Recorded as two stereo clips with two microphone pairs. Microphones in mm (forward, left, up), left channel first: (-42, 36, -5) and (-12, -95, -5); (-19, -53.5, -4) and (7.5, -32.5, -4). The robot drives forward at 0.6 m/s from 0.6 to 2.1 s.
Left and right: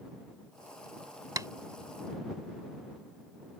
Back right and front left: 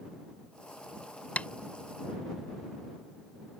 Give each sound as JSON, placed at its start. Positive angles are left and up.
{"t": 1.4, "sound": "tapping", "azimuth_deg": -130}